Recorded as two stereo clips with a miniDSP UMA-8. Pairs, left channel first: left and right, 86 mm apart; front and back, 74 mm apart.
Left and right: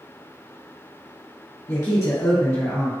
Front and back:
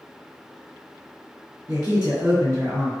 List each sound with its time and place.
1.7 s a man speaking: 140° left, 1.2 m